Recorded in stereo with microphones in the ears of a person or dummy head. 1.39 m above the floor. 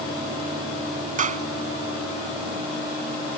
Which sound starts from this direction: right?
A clap, at 1.2 s.